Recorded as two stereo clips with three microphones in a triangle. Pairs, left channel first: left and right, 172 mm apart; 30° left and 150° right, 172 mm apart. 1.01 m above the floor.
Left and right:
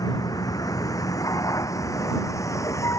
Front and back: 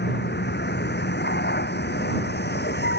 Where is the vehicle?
20° left; by 3.0 s 15° left.